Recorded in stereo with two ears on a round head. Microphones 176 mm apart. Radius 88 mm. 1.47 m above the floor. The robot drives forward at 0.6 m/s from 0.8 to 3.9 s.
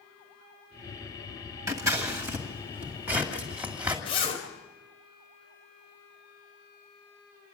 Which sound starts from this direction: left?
A zipper, at 4.0 s.